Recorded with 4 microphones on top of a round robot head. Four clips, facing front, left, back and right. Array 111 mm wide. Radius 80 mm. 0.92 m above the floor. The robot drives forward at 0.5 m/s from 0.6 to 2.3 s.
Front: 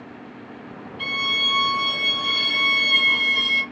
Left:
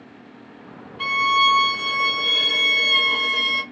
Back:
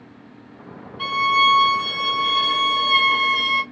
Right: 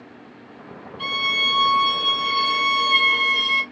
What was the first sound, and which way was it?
A violin, 130° left.